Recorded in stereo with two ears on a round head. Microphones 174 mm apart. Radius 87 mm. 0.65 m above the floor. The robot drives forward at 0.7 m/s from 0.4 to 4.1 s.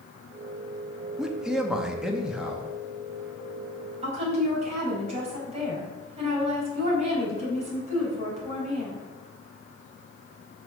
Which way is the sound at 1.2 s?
5° right (ahead or behind).